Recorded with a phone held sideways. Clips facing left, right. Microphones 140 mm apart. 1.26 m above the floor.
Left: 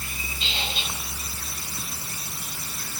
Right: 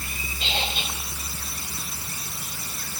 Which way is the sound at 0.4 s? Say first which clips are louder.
Right 4 dB; 55° right (ahead or behind).